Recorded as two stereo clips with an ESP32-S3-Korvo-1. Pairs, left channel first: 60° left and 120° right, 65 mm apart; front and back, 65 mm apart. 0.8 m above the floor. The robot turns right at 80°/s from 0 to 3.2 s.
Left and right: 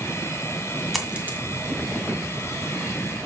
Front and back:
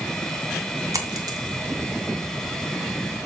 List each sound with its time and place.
0.9 s a dropped coin: 150° left, 2 m; by 1.4 s 175° right, 2 m